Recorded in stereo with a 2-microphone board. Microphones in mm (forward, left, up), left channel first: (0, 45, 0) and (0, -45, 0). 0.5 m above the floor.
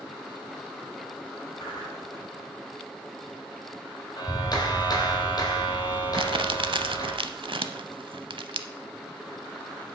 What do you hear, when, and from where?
1.6 s a whoosh: 55° left (ahead or behind), 3 m
4.2 s a clap: 50° left (ahead or behind), 2.0 m
6.2 s crumpling: 70° right (ahead or behind), 0.7 m